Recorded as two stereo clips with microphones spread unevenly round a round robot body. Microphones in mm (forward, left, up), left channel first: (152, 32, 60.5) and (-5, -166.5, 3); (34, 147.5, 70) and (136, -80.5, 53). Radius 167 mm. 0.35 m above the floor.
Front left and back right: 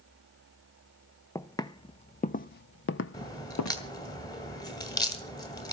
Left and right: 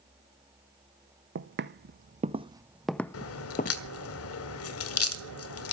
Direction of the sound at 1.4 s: 25° right.